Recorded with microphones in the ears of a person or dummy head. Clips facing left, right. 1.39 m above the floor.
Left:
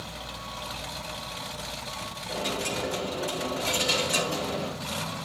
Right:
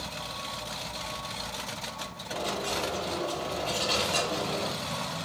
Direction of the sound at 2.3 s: 55° left (ahead or behind).